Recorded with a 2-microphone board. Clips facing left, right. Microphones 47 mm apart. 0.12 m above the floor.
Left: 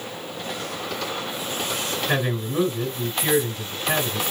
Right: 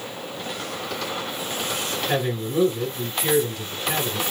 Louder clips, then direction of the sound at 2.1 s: Right 1 dB; 30° left (ahead or behind).